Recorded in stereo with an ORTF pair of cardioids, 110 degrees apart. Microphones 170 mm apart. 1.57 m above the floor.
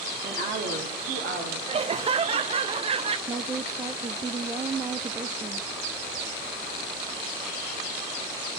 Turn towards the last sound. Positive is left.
turn(degrees=-20)